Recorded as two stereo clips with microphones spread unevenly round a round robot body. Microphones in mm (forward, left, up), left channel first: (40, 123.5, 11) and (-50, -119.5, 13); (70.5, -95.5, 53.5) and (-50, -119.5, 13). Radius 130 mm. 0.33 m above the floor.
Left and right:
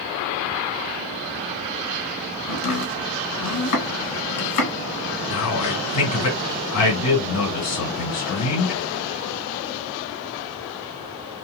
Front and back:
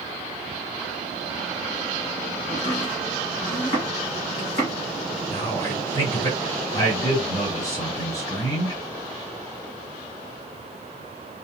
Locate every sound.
2.5 s chopping: 80° left, 2.0 m
5.3 s a man speaking: 90° left, 2.5 m